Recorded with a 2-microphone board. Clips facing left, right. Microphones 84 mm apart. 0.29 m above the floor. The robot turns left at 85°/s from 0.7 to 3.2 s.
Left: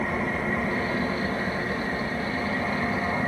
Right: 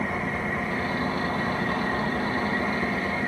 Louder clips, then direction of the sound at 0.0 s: Left 1 dB; straight ahead.